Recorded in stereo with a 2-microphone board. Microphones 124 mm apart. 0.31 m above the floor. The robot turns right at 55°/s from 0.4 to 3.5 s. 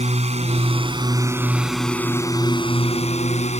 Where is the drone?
75° right; by 3.6 s 95° left.